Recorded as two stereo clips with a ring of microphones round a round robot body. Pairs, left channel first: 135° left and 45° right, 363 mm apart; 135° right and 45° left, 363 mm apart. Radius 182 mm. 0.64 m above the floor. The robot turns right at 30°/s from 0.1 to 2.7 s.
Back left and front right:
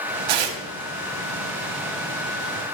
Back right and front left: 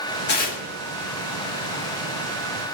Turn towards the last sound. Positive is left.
turn(degrees=0)